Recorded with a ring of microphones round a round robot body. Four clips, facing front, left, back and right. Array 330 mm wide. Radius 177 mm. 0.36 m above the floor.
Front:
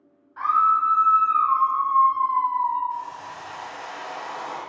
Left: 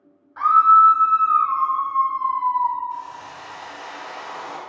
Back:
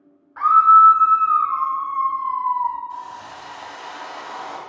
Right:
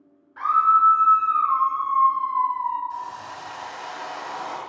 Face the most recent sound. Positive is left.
turn(degrees=-145)